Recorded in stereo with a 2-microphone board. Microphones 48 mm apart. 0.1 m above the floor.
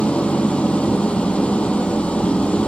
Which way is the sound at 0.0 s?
25° left (ahead or behind).